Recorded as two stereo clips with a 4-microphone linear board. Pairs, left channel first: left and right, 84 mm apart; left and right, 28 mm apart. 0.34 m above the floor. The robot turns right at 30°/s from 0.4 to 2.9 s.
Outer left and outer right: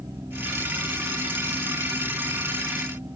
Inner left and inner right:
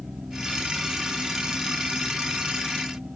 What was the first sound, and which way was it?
Only background noise.